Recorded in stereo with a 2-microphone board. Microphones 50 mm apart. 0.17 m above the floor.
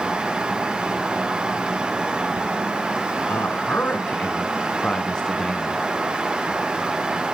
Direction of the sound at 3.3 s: 45° left (ahead or behind).